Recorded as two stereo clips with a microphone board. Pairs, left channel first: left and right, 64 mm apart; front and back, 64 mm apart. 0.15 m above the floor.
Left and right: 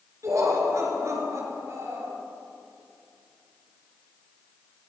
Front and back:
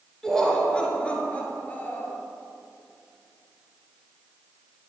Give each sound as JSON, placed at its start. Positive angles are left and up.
{"t": 0.2, "sound": "laughter", "azimuth_deg": -80, "distance_m": 2.0}